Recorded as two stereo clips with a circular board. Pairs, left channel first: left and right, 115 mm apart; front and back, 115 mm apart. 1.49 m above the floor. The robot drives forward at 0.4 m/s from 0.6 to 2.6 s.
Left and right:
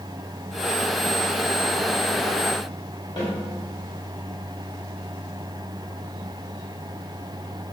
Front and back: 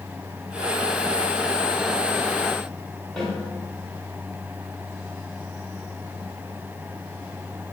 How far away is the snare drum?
About 1.6 m.